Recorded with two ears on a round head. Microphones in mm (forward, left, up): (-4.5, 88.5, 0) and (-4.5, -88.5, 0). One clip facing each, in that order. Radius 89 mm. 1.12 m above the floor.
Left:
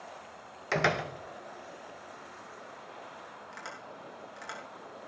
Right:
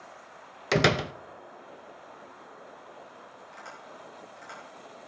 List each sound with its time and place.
0.7 s a door slam: 45° right (ahead or behind), 0.6 m
3.5 s tapping: 75° left (ahead or behind), 6.5 m